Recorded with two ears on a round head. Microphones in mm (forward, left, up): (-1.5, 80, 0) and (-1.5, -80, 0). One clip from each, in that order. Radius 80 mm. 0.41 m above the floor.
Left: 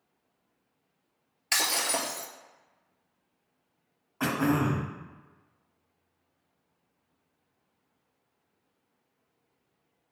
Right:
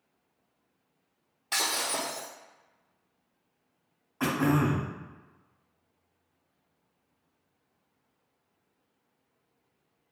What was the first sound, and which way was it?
Breaking glass, 65° left (ahead or behind).